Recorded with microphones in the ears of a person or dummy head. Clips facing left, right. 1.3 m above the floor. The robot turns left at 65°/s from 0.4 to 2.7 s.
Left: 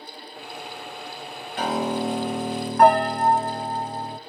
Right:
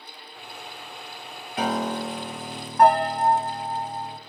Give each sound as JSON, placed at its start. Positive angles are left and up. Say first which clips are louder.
{"t": 1.6, "sound": "a piano", "louder": "left 1 dB", "azimuth_deg": -170, "distance_m": 0.7}